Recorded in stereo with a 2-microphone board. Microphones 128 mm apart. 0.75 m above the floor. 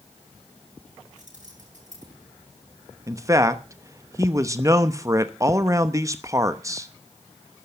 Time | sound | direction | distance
1.2 | keys jangling | 70° right (ahead or behind) | 7.5 m
3.1 | a man speaking | 25° right (ahead or behind) | 0.9 m